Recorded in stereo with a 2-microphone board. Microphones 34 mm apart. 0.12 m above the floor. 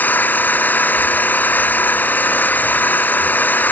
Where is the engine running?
75° left (ahead or behind).